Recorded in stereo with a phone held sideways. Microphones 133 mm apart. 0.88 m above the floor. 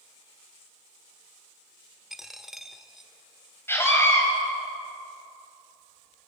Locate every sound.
2.1 s a dropped coin: centre (ahead or behind), 1.3 m
3.7 s a scream: 15° left (ahead or behind), 5.5 m